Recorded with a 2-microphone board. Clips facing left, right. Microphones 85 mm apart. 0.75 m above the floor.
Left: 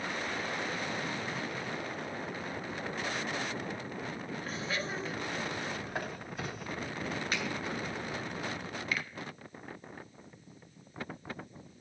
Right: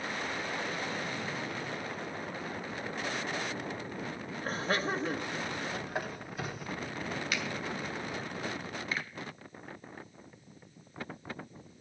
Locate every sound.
4.4 s laughter: 45° right (ahead or behind), 1.0 m; by 5.8 s 50° right (ahead or behind), 1.3 m
5.9 s a squeak: 5° right (ahead or behind), 1.3 m
7.3 s a finger snap: 35° left (ahead or behind), 2.5 m
8.9 s a finger snap: 30° right (ahead or behind), 1.4 m